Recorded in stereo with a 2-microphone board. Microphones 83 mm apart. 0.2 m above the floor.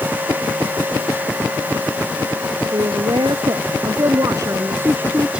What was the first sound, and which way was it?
A woman speaking, 65° right (ahead or behind).